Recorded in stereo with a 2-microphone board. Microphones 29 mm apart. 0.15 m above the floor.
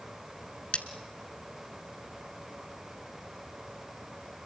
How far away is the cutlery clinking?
About 1.1 m.